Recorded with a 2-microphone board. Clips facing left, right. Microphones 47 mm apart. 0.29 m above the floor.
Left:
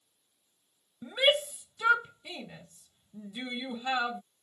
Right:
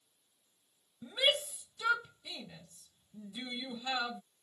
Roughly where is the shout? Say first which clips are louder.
Left 5 dB; left.